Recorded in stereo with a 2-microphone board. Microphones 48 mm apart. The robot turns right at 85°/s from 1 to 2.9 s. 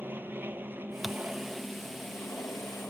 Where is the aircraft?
50° right; by 2.9 s 110° left.